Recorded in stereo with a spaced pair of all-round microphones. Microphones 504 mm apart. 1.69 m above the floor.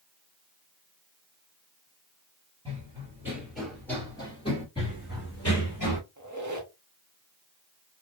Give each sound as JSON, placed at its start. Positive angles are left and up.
{"t": 2.6, "sound": "running footsteps", "side_deg": -10, "distance_m": 2.0}
{"t": 4.8, "sound": "running footsteps", "side_deg": 10, "distance_m": 1.9}
{"t": 6.2, "sound": "a squeak", "side_deg": -40, "distance_m": 0.7}